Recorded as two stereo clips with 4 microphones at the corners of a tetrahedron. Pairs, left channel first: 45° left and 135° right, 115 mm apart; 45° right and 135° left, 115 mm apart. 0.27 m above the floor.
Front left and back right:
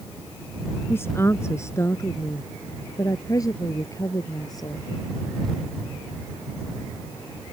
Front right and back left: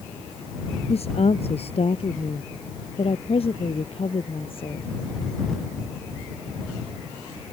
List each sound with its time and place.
0.9 s a woman speaking: 25° right; by 4.9 s 10° right